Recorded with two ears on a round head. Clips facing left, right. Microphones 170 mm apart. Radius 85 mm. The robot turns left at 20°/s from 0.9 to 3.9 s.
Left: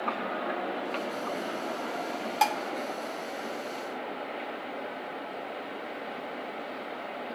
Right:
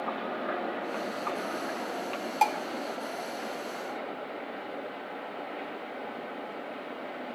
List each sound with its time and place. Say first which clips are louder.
2.4 s dishes clattering: even; 10° left (ahead or behind), 1.3 m; by 2.6 s 5° left (ahead or behind), 1.3 m